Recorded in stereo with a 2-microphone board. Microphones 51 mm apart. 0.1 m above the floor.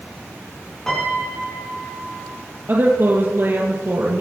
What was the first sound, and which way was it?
A piano, 10° left (ahead or behind).